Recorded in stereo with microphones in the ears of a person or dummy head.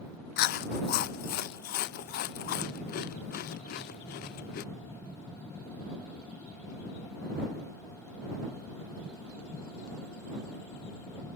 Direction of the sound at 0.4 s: 45° left (ahead or behind).